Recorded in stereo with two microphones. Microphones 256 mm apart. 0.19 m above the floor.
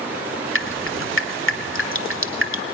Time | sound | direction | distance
0.6 | dripping | 50° left (ahead or behind) | 1.2 m